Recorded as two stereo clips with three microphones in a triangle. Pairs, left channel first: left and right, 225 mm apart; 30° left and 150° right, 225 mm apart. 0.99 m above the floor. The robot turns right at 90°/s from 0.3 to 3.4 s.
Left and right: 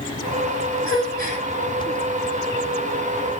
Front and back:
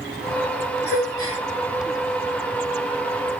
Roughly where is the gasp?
Right.